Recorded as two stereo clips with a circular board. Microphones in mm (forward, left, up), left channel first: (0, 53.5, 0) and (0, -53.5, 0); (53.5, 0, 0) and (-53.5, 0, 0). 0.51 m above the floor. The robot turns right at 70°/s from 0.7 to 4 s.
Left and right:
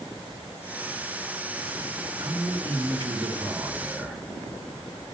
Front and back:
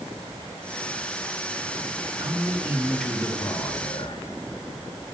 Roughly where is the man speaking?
Behind right.